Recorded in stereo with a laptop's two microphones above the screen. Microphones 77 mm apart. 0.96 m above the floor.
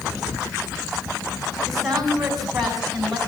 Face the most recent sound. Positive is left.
turn(degrees=-5)  # may be behind; listen again after turning